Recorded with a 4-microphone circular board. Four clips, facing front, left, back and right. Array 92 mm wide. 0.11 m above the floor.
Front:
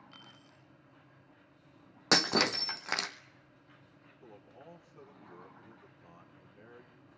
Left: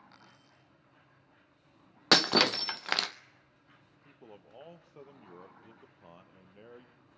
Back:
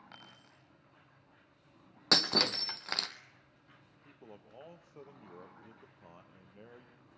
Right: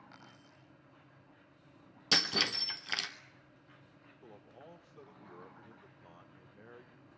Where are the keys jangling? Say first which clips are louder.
Right 2 dB, even; 170° right, 10 m.